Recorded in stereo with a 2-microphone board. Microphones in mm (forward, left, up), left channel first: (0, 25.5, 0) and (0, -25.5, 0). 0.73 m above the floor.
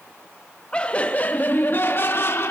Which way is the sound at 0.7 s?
25° left (ahead or behind).